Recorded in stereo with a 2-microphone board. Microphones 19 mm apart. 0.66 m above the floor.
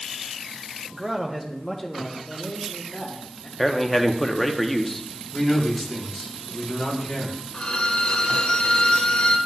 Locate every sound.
0.9 s a man speaking: 30° right (ahead or behind), 0.9 m; by 3.5 s 50° left (ahead or behind), 1.4 m
3.6 s a man speaking: 5° left (ahead or behind), 0.7 m
5.3 s a man speaking: 15° left (ahead or behind), 4.5 m
7.5 s a violin: 75° left (ahead or behind), 0.7 m